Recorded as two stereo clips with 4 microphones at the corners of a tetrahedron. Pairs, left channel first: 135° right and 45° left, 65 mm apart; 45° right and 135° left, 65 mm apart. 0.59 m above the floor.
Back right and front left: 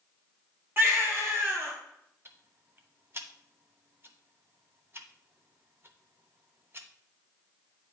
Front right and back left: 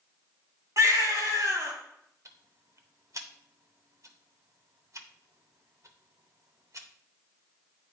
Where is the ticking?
95° left, 0.7 m.